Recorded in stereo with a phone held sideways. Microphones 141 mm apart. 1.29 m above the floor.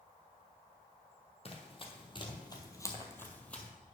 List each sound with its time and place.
1.4 s running footsteps: 45° left (ahead or behind), 1.7 m; by 3.7 s 5° left (ahead or behind), 1.5 m